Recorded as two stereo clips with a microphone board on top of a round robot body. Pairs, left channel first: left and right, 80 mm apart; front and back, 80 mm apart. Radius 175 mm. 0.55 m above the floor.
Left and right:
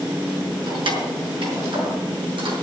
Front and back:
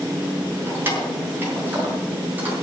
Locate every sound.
0.7 s keys jangling: 115° right, 6 m; by 2.5 s 105° right, 6 m